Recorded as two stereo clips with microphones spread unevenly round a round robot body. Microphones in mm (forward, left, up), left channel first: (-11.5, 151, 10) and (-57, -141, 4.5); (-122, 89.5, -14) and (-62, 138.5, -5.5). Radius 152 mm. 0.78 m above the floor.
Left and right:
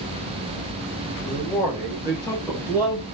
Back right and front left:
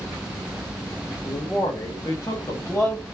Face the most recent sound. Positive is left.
turn(degrees=155)